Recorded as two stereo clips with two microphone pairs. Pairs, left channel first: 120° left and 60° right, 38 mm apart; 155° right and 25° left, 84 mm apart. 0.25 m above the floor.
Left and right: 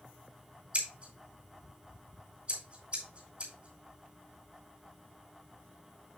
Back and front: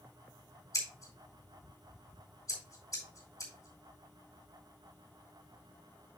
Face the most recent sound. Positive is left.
turn(degrees=-120)